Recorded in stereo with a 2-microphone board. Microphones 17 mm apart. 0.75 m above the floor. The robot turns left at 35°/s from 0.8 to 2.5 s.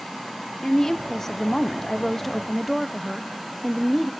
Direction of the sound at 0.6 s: 25° left (ahead or behind).